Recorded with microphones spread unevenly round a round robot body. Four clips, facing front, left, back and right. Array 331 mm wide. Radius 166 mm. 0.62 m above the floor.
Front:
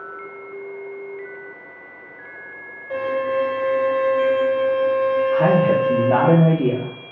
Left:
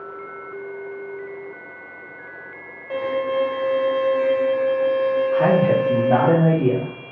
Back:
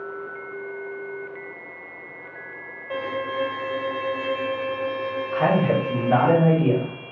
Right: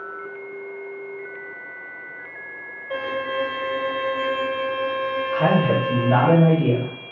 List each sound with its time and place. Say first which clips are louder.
2.9 s a violin: left 4 dB, front 6 dB; 95° left, 0.9 m
5.3 s a man speaking: left 1 dB, front 1 dB; 30° left, 0.9 m